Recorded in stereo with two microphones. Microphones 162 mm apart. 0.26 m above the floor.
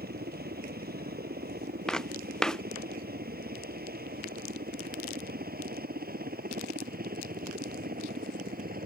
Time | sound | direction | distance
0.0 | a helicopter | 75° right (ahead or behind) | ?
1.9 | footsteps | 5° left (ahead or behind) | ?